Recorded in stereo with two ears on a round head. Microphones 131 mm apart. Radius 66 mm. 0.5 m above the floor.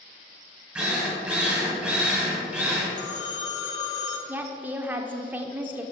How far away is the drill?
About 3 m.